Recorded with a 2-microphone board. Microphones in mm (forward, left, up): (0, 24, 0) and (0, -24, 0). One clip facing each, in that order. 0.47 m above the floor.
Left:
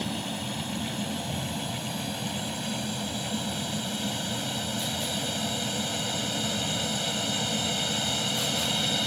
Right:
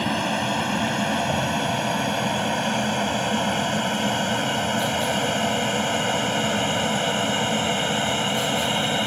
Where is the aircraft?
65° right (ahead or behind); by 9.1 s 35° right (ahead or behind).